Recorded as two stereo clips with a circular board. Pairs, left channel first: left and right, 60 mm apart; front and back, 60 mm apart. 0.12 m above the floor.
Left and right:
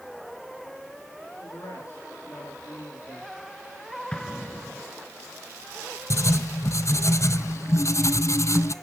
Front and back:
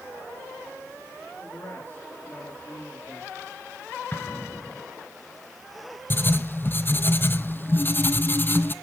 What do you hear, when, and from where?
1.4 s a man speaking: 55° left, 9.5 m
4.1 s an explosion: 25° left, 1.0 m
6.1 s writing: 55° left, 0.7 m